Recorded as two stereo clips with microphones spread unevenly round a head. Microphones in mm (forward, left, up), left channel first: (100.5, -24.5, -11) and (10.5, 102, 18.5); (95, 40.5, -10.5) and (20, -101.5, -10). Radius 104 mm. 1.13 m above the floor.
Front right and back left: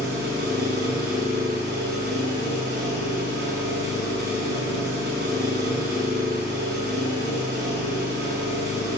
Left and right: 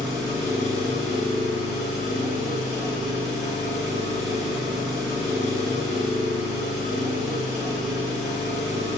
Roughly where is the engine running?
Behind left.